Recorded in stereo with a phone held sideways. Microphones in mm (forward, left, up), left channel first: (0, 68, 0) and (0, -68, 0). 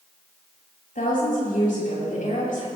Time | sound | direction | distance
0.9 | a woman speaking | 85° left | 7 m